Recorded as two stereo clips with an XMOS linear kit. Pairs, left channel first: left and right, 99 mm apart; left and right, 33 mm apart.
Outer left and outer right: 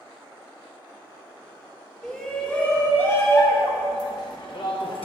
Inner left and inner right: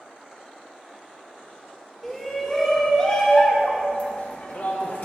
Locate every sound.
2.0 s a shout: 10° left (ahead or behind), 1.8 m; by 5.0 s 65° left (ahead or behind), 1.5 m